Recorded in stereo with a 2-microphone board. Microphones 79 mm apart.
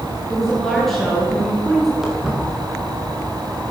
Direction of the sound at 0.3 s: 5° left (ahead or behind).